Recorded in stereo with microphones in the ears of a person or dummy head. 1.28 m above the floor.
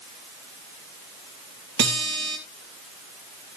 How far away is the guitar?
About 1.9 m.